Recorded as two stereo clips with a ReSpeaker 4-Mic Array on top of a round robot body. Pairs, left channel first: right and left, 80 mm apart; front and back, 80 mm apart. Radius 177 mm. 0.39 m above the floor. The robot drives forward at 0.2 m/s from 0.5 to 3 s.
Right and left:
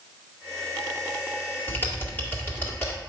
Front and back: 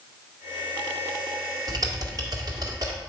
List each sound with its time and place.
1.7 s typing on a keyboard: 150° right, 1.9 m; by 3.0 s 155° right, 2 m